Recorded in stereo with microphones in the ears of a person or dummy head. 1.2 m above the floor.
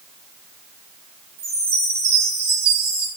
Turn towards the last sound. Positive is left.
turn(degrees=-30)  # may be behind; listen again after turning